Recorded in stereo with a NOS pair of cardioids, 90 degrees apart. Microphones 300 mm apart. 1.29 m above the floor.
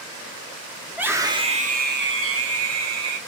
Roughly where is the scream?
Ahead.